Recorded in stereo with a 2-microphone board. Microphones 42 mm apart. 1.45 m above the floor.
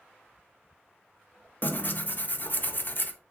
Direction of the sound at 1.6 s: 45° left (ahead or behind).